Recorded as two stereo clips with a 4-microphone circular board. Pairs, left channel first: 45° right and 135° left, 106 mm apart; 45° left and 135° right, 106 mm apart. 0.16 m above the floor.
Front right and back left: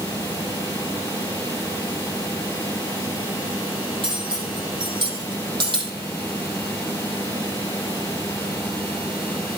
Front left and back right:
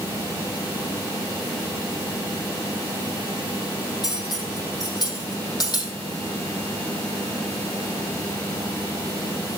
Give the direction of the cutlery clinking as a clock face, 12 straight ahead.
9 o'clock.